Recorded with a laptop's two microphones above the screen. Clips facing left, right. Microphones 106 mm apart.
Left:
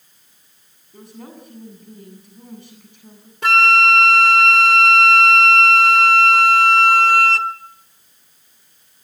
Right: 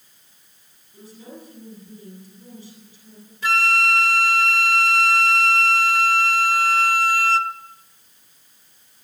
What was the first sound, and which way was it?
A woman speaking, 65° left (ahead or behind).